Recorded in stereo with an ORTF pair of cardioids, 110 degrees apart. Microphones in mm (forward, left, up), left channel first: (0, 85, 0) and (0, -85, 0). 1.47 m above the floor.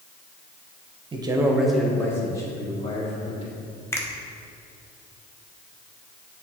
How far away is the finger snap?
About 1.0 m.